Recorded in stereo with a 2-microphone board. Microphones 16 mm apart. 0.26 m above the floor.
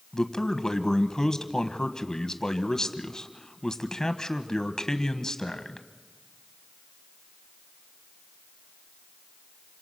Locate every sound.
0.1 s a man speaking: 40° left (ahead or behind), 1.3 m